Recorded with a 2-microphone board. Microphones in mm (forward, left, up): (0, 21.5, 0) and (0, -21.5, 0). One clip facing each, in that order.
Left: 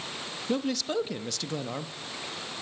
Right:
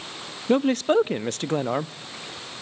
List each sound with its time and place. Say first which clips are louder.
0.5 s a man speaking: right 10 dB; 40° right (ahead or behind), 0.6 m